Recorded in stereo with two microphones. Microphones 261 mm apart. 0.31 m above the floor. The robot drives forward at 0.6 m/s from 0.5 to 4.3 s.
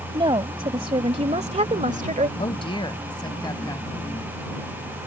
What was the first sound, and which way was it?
A woman speaking, 20° right (ahead or behind).